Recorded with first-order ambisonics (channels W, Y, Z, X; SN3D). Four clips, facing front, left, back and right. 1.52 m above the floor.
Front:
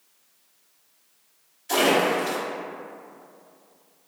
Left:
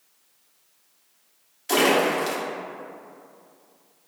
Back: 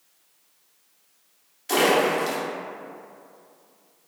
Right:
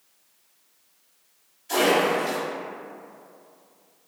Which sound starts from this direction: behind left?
A splash, at 1.7 s.